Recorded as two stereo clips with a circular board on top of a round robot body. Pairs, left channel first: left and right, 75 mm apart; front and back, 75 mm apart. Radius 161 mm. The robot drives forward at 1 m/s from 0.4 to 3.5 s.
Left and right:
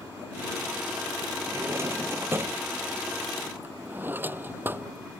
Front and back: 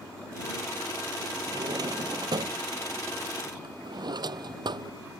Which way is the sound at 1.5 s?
145° right.